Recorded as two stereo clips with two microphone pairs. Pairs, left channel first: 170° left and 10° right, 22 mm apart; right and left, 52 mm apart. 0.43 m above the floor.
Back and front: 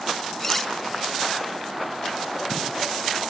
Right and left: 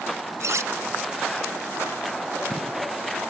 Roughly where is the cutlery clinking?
Left.